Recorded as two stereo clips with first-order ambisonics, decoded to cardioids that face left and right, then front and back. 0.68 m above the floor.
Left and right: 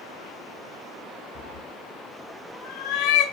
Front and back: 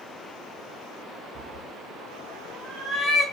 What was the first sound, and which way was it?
A cat meowing, 125° left.